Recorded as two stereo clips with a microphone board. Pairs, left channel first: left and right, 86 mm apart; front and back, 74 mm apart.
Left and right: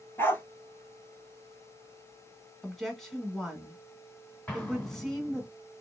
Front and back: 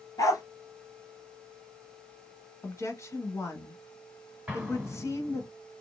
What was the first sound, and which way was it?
A dog barking, 30° left.